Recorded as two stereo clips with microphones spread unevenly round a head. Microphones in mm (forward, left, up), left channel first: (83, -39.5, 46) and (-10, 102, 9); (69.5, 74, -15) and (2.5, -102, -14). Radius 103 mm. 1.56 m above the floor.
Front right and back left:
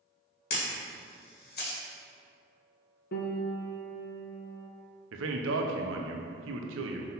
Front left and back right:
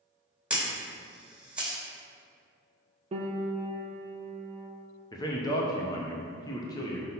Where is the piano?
55° right, 0.8 m.